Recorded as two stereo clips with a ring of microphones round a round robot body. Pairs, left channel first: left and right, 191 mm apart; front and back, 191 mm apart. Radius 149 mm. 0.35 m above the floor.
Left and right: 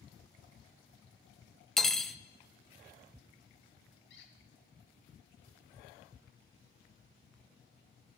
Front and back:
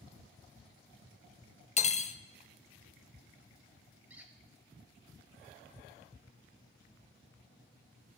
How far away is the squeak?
About 1.5 m.